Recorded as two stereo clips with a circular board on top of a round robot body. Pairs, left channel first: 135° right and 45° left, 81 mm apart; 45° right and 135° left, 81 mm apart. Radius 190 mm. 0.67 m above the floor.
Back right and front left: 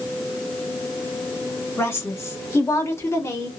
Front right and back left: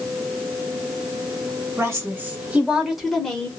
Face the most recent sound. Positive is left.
turn(degrees=-115)